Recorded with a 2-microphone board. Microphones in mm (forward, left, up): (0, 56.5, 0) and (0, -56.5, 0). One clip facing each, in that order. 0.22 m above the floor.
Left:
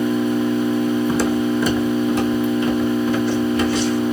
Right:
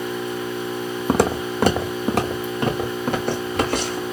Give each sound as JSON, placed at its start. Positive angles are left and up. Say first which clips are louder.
{"t": 0.0, "sound": "an engine running", "louder": "left 8 dB", "side_deg": 75, "distance_m": 1.4}
{"t": 1.1, "sound": "footsteps", "louder": "left 2 dB", "side_deg": -60, "distance_m": 0.6}